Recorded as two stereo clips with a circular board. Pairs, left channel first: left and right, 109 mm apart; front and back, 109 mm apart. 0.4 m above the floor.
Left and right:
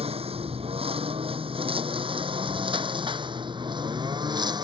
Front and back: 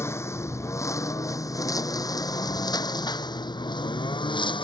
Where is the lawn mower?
65° right; by 4.6 s 40° right.